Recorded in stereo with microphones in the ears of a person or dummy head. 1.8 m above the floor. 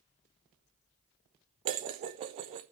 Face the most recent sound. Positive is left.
turn(degrees=-30)  # may be behind; listen again after turning